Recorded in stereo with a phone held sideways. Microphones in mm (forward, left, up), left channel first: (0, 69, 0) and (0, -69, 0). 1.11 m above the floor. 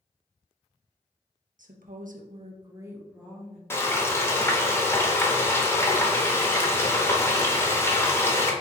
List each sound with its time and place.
1.6 s a woman speaking: 70° right (ahead or behind), 0.8 m; by 3.6 s centre (ahead or behind), 1.3 m
3.7 s frying: 20° left (ahead or behind), 0.8 m